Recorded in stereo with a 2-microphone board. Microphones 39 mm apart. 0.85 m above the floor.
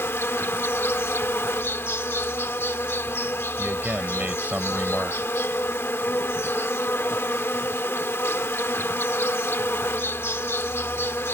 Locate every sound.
0.0 s an insect: 75° left (ahead or behind)
3.6 s a man speaking: 35° right (ahead or behind)